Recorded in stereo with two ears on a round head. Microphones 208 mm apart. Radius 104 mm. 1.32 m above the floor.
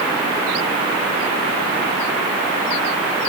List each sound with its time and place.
Only background noise.